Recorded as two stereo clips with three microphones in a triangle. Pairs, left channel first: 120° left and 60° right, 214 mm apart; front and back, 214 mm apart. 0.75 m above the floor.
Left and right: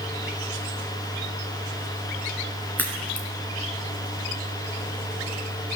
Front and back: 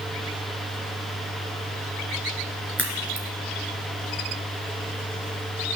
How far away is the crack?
About 2.5 m.